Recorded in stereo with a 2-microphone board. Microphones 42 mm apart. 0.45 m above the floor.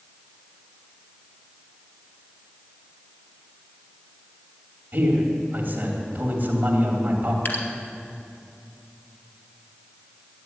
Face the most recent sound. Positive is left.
turn(degrees=50)  # may be behind; listen again after turning